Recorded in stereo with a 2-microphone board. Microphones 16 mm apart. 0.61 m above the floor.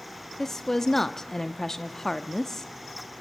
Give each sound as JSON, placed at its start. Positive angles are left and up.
{"t": 0.4, "sound": "a woman speaking", "side_deg": 30, "distance_m": 0.6}